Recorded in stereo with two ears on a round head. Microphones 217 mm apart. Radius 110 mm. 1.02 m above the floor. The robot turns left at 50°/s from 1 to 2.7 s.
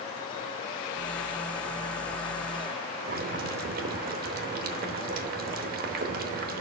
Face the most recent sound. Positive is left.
turn(degrees=-40)  # may be behind; listen again after turning